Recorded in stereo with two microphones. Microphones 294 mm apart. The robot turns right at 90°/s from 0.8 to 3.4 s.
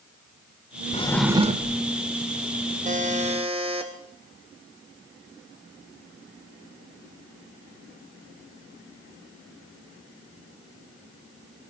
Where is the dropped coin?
No dropped coin in this recording.